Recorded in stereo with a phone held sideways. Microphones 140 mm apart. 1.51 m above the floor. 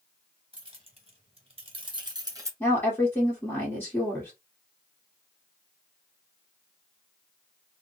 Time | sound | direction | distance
0.5 | keys jangling | 40° right (ahead or behind) | 1.1 m
2.6 | a woman speaking | 15° left (ahead or behind) | 1.5 m